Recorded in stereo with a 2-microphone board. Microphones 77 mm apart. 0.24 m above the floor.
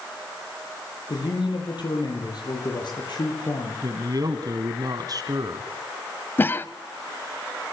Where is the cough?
25° left (ahead or behind), 1.0 m.